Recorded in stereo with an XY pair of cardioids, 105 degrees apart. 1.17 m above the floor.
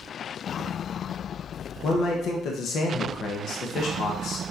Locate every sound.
1.8 s a man speaking: 60° left, 1.1 m